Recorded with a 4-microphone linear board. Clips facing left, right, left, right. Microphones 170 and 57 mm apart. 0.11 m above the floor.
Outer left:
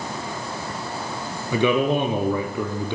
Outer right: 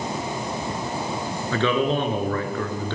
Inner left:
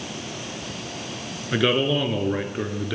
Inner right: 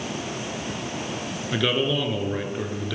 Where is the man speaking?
15° left (ahead or behind), 1.4 m.